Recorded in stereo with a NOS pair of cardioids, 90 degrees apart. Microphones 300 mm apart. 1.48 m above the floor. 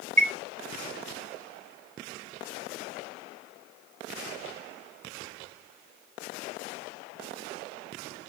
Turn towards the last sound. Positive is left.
turn(degrees=-25)